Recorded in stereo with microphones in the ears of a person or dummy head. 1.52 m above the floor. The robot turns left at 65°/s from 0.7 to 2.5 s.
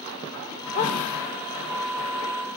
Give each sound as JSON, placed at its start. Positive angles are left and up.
{"t": 0.8, "sound": "a dog barking", "side_deg": 45, "distance_m": 1.6}